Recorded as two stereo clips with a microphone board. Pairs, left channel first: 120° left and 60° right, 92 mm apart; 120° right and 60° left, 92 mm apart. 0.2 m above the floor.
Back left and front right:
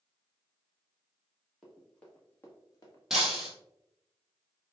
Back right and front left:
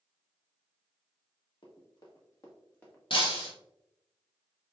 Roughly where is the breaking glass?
Behind right.